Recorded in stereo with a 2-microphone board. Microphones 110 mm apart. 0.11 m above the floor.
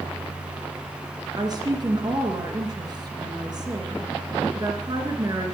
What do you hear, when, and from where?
1.4 s a woman speaking: 35° right (ahead or behind), 2 m